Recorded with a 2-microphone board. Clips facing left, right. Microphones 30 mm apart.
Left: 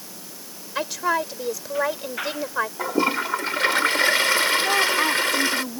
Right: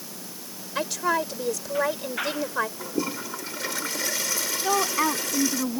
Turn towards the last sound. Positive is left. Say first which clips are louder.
# left 4 dB
turn(degrees=-5)  # may be behind; listen again after turning